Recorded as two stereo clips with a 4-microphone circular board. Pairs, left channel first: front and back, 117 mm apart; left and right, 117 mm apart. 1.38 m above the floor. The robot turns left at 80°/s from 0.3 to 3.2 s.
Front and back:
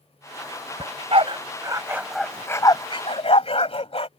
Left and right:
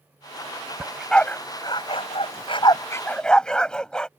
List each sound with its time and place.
0.8 s a dog barking: 160° right; by 4.1 s 10° left